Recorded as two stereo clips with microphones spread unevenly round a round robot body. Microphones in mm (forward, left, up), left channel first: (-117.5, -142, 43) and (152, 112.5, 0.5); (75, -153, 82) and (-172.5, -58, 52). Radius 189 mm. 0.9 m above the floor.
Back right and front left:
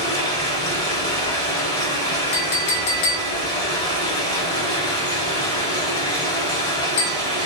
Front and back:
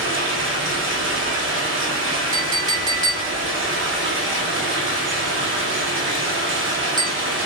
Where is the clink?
125° right, 0.6 m.